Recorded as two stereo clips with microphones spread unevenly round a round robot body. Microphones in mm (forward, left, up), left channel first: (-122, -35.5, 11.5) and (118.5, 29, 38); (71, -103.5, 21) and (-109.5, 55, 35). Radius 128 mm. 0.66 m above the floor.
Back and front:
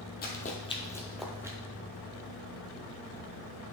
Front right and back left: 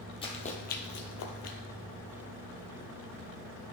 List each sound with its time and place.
0.2 s running footsteps: 110° right, 1.5 m; by 1.6 s 55° right, 1.3 m